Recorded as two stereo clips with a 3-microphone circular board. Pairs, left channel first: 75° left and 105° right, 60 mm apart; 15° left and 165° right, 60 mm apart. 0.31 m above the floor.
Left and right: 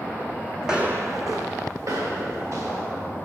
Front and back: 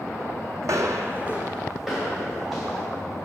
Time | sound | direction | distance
0.6 | footsteps | 170° left | 0.7 m